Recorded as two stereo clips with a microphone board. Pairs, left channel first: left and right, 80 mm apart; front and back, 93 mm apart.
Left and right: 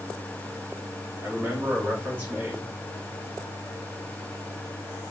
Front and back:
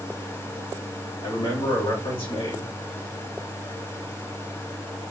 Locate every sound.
1.2 s a man speaking: 20° right, 2.5 m